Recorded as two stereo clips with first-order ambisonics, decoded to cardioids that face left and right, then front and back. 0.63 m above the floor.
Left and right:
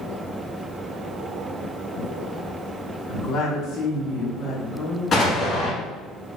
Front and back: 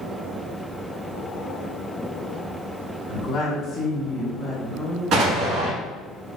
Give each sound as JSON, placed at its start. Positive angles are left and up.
{"t": 3.1, "sound": "a woman speaking", "azimuth_deg": 50, "distance_m": 1.3}
{"t": 5.1, "sound": "an explosion", "azimuth_deg": 150, "distance_m": 1.1}